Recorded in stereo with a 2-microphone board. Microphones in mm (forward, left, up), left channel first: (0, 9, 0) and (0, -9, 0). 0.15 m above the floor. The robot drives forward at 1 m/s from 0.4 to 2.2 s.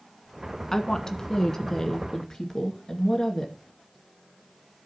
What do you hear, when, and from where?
0.7 s a woman speaking: 25° left (ahead or behind), 1.5 m; by 3.5 s 20° left (ahead or behind), 2 m